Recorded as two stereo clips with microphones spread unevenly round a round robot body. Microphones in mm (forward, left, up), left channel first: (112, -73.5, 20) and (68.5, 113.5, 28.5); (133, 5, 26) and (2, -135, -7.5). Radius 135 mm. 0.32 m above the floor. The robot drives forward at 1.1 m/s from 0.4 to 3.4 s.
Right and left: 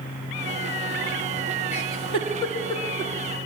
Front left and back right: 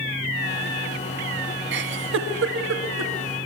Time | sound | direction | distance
1.7 | a giggle | 135° right | 1.7 m